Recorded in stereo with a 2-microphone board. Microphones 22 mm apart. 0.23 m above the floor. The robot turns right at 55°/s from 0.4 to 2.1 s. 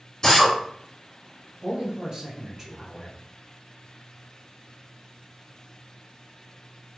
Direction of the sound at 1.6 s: 30° right (ahead or behind).